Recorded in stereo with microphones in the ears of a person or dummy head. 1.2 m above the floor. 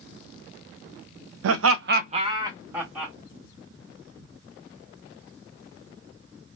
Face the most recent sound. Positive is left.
turn(degrees=-10)  # may be behind; listen again after turning